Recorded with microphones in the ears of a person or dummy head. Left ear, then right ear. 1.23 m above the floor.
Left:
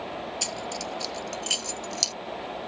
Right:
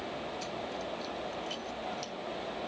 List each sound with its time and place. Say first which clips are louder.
0.4 s keys jangling: left 6 dB; 80° left; by 2.1 s 85° left